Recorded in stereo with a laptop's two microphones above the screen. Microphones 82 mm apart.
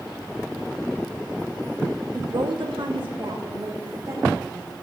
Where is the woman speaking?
55° right (ahead or behind), 1.4 m; by 4.7 s 40° right (ahead or behind), 4 m.